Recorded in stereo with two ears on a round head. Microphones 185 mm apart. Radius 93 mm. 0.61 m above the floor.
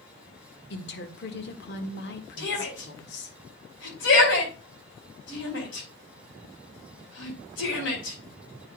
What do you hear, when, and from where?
0.7 s a woman speaking: 55° left (ahead or behind), 1.4 m
2.4 s a shout: 65° left (ahead or behind), 4.5 m